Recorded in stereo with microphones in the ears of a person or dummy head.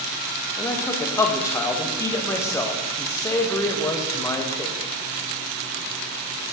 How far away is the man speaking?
About 1.4 m.